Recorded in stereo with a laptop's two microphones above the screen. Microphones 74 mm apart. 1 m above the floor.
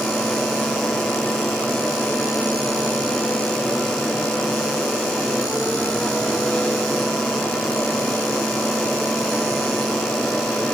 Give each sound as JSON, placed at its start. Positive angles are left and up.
{"t": 0.0, "sound": "a fan", "side_deg": 15, "distance_m": 1.8}